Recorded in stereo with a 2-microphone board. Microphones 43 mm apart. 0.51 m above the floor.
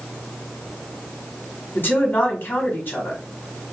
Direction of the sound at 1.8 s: 50° left (ahead or behind).